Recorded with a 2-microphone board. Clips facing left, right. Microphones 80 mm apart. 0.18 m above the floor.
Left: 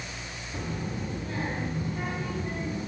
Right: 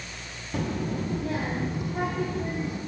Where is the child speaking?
75° right (ahead or behind), 2.5 m; by 2.8 s 85° right, 5.5 m.